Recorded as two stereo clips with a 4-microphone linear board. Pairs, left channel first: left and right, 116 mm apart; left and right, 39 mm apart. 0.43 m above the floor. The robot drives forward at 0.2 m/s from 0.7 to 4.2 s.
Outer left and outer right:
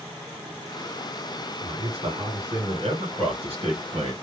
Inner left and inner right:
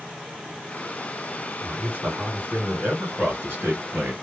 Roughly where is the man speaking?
Right.